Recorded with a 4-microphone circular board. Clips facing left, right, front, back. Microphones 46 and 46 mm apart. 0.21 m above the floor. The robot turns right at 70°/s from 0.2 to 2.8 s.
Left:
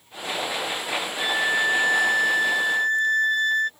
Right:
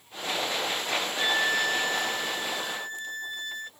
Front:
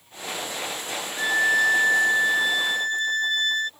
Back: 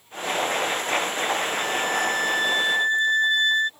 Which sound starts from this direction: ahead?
A violin, at 1.2 s.